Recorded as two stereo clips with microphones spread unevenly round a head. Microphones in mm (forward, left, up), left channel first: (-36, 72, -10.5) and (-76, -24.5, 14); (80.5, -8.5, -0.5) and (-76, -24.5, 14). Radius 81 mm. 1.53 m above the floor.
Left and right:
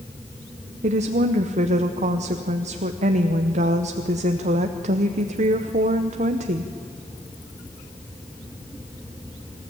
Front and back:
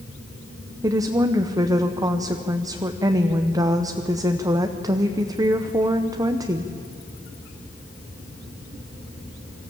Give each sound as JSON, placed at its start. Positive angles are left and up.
{"t": 0.8, "sound": "a woman speaking", "azimuth_deg": -105, "distance_m": 0.9}